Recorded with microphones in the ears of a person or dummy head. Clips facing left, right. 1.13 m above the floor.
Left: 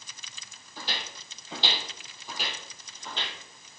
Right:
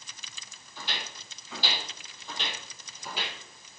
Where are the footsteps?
35° left (ahead or behind), 2.5 m; by 3.4 s 10° right (ahead or behind), 2 m.